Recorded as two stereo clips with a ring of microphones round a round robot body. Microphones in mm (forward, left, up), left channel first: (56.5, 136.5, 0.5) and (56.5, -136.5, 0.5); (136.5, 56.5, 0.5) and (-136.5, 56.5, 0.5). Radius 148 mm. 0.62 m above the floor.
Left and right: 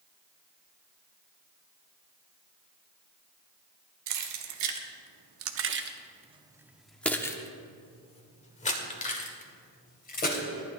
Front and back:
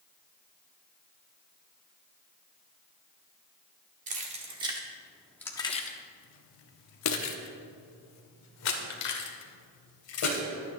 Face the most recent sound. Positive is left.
turn(degrees=30)